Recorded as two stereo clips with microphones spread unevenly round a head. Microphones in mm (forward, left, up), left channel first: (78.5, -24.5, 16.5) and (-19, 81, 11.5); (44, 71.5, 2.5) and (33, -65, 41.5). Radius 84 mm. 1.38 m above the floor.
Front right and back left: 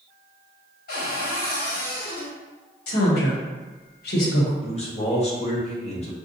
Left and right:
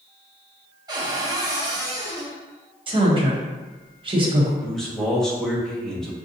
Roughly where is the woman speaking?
Ahead right.